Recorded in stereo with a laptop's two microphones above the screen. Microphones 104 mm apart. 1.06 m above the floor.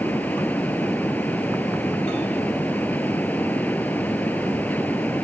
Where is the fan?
15° left (ahead or behind).